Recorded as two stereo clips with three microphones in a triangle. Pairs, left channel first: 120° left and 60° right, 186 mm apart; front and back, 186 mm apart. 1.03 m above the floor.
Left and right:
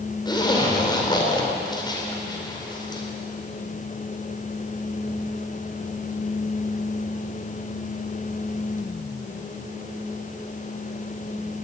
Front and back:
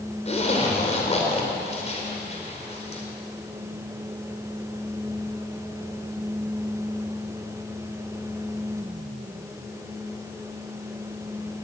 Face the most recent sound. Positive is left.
turn(degrees=55)